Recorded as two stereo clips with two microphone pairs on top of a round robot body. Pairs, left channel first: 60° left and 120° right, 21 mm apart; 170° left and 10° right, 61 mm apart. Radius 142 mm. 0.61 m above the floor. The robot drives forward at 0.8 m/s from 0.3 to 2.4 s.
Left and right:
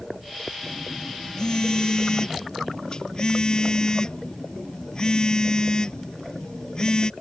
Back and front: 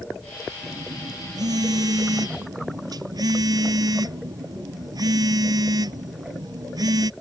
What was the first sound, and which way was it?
A phone buzzing, 5° left.